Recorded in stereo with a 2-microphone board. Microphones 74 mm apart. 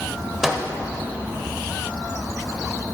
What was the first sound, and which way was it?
A microwave, 10° right (ahead or behind).